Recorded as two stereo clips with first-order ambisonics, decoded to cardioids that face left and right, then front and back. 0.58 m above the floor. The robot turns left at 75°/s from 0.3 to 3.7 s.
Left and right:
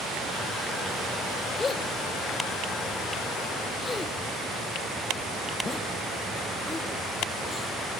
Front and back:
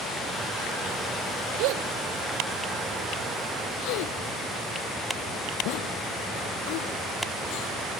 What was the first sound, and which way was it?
A gasp, 170° left.